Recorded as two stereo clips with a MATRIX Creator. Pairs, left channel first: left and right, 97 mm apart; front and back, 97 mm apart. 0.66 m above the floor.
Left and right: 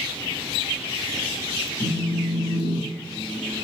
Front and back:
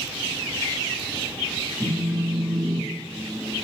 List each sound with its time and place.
1.8 s a phone buzzing: 85° left, 0.6 m